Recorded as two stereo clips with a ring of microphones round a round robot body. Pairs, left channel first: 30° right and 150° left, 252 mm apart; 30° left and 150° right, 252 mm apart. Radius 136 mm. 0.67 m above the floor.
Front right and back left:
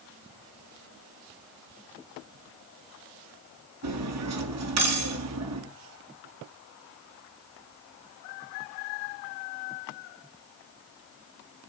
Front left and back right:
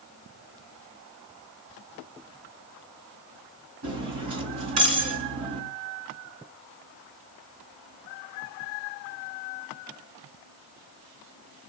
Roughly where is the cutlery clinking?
Behind.